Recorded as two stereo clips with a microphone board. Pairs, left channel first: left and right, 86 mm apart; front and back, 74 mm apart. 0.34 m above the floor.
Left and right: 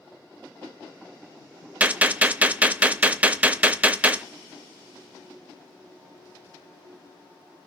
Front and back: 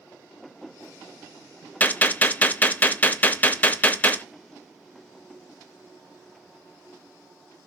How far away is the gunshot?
About 0.7 m.